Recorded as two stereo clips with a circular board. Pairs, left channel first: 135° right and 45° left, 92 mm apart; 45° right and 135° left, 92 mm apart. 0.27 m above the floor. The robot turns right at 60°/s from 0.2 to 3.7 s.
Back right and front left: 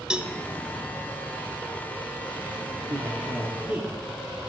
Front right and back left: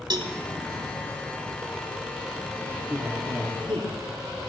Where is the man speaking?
60° left, 5 m; by 4.0 s 115° left, 5 m.